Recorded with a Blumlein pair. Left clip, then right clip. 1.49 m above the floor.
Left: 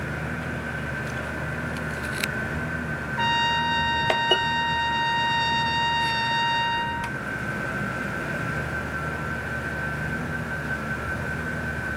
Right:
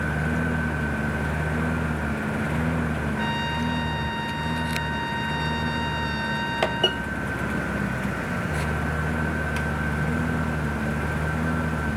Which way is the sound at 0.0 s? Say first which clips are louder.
Right 4 dB; 65° right.